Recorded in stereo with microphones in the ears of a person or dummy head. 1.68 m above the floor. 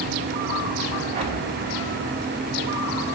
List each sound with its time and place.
1.1 s an explosion: 40° right (ahead or behind), 4 m